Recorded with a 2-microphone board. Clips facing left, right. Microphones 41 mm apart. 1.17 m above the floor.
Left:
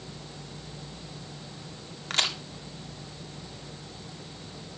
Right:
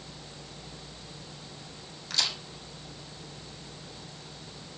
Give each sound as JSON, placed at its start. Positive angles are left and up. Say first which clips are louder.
{"t": 2.1, "sound": "a crack", "louder": "left 4 dB", "side_deg": 50, "distance_m": 2.0}